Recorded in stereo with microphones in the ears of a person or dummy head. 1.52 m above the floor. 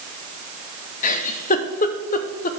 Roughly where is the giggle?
Left.